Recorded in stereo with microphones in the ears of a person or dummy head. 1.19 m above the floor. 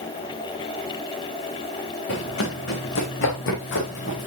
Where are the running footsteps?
70° left (ahead or behind), 3.5 m; by 4.3 s 50° left (ahead or behind), 3 m.